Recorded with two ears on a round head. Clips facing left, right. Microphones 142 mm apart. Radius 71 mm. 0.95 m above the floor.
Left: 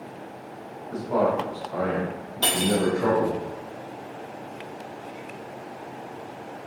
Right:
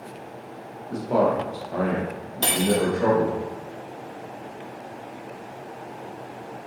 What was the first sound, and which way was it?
A man speaking, 30° right (ahead or behind).